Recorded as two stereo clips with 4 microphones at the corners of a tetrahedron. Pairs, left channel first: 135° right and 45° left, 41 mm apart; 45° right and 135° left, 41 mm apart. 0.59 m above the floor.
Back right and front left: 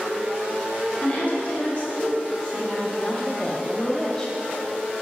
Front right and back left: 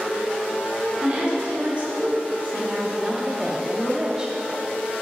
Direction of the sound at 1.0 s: 165° right.